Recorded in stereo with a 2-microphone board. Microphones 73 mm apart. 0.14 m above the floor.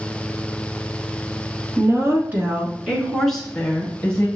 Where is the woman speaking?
40° right (ahead or behind), 1.6 m; by 4.3 s 20° left (ahead or behind), 2 m.